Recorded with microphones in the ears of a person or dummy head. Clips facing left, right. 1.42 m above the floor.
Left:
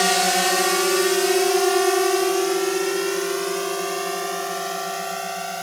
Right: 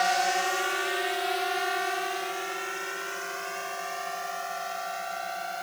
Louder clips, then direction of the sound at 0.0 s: Left 6 dB; 65° left (ahead or behind).